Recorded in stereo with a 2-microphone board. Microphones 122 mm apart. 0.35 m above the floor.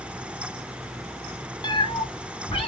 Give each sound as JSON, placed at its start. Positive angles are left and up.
{"t": 1.6, "sound": "a cat meowing", "side_deg": 35, "distance_m": 0.5}